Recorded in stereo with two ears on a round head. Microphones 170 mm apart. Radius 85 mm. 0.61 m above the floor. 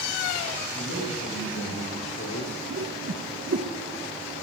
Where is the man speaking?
75° left (ahead or behind), 4 m; by 2.6 s 45° left (ahead or behind), 1.7 m.